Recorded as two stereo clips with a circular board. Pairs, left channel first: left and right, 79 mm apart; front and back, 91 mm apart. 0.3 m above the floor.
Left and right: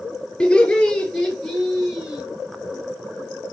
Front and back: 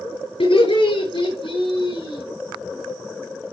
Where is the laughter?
10° left, 7 m; by 2.2 s 10° right, 5.5 m.